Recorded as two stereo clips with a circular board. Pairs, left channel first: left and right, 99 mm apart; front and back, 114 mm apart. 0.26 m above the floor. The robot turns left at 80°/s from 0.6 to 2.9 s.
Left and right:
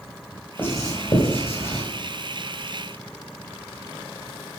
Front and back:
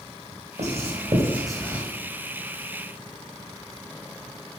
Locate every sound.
0.6 s writing: 165° left, 5 m; by 1.8 s 65° left, 5 m